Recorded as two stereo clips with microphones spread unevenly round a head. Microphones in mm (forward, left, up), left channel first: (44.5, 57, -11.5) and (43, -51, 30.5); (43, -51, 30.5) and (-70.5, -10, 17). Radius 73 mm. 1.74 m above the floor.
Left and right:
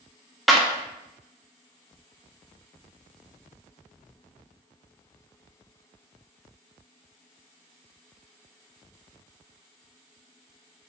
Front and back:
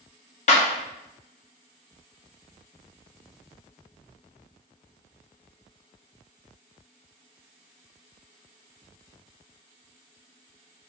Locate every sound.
0.5 s a clap: 15° right, 0.6 m